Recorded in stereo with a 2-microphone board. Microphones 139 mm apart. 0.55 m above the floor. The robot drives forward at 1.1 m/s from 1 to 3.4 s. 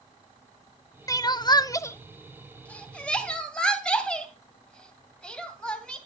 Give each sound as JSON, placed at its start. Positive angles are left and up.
{"t": 1.1, "sound": "crying", "side_deg": 25, "distance_m": 0.6}